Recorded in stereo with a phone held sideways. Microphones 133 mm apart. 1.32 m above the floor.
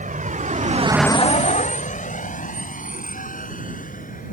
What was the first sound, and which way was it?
A vehicle, 85° right.